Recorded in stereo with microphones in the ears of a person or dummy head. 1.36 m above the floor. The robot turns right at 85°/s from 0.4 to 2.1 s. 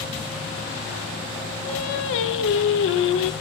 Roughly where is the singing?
Ahead left.